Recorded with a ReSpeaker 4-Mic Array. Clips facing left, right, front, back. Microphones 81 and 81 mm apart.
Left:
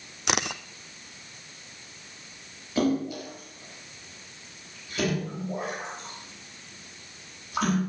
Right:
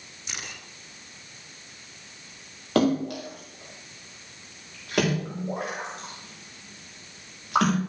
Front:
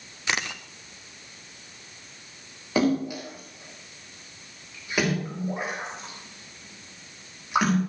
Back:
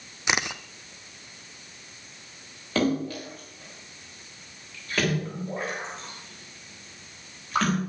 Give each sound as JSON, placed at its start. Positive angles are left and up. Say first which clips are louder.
{"t": 0.3, "sound": "a camera shutter", "louder": "left 12 dB, back 2 dB", "azimuth_deg": 105, "distance_m": 1.1}
{"t": 2.8, "sound": "a splash", "louder": "right 3 dB, front 2 dB", "azimuth_deg": -80, "distance_m": 8.0}